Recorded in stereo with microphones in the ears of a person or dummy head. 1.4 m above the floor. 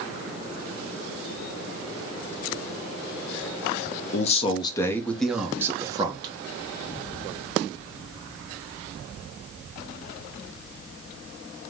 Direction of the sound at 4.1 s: 40° left (ahead or behind).